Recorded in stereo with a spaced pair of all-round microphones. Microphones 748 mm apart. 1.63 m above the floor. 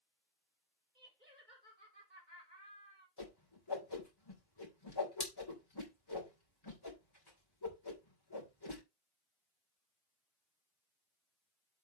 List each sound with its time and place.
0.9 s laughter: 85° right, 4.5 m
3.2 s a whoosh: 30° left (ahead or behind), 3 m